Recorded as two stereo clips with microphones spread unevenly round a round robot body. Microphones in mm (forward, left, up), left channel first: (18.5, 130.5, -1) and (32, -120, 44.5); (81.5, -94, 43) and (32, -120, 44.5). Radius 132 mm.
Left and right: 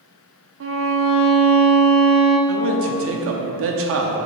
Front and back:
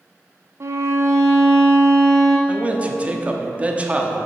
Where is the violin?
125° right, 0.9 m.